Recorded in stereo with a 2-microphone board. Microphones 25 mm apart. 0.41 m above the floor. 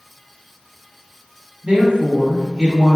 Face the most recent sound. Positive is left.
turn(degrees=-60)  # may be behind; listen again after turning